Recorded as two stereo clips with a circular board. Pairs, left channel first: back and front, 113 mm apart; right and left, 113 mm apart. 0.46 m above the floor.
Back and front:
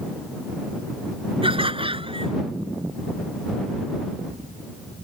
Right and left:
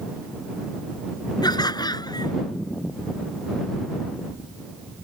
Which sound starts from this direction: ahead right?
Laughter, at 1.4 s.